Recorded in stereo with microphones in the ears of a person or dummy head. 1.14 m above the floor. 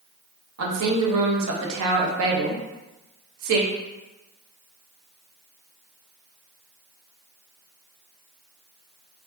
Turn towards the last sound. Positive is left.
turn(degrees=-70)  # may be behind; listen again after turning